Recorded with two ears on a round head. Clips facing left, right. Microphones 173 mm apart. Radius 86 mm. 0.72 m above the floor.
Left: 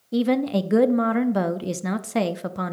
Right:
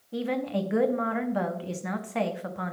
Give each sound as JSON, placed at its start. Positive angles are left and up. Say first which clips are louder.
{"t": 0.1, "sound": "a woman speaking", "louder": "left 8 dB", "side_deg": 55, "distance_m": 0.6}